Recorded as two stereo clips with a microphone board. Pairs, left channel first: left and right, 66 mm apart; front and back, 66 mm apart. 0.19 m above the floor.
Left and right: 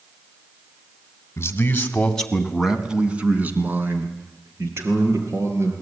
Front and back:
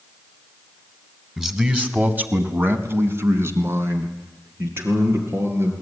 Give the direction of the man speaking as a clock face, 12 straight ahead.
9 o'clock.